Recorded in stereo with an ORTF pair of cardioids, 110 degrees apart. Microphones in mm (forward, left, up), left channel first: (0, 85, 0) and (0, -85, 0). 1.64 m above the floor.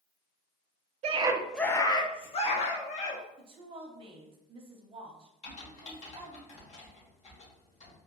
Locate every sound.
1.0 s a scream: 45° right, 0.7 m; by 3.2 s 50° left, 2 m
3.4 s a woman speaking: 35° right, 1.0 m
5.4 s typing on a keyboard: 50° left, 2 m